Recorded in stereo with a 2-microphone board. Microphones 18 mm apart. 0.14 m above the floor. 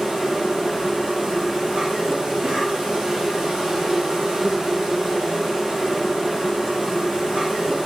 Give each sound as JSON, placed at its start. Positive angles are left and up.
{"t": 0.0, "sound": "an insect", "side_deg": -60, "distance_m": 2.0}